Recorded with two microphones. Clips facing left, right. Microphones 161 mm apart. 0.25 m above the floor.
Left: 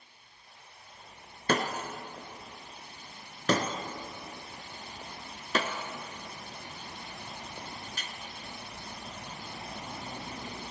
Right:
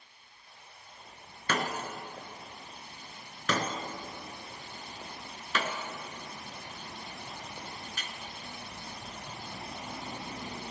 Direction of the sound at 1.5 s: 35° left (ahead or behind).